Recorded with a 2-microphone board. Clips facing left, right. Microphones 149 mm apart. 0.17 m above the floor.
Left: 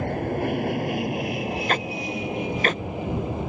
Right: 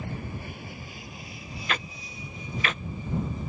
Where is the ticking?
40° left (ahead or behind).